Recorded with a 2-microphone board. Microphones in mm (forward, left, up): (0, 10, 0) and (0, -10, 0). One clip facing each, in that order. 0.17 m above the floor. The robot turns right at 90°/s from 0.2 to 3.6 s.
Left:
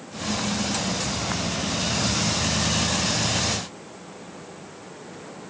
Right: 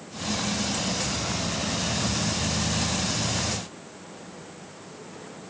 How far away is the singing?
No singing in this recording.